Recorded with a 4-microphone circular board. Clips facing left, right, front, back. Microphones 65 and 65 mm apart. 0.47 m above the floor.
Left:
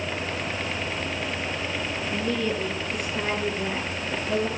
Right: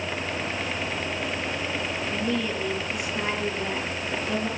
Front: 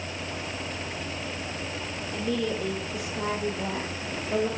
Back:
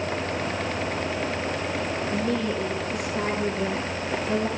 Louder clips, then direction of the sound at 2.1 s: Left 2 dB, even; 175° right.